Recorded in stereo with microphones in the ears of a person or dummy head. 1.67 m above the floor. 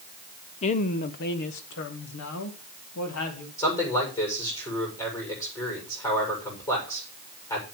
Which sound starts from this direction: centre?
A man speaking, at 3.6 s.